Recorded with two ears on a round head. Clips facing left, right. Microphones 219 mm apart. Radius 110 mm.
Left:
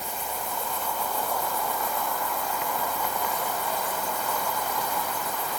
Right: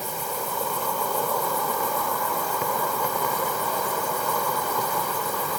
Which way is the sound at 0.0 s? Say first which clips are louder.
Right 4 dB; 70° right (ahead or behind).